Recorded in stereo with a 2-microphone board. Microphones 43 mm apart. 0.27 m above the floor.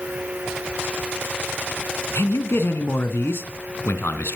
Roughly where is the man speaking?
Left.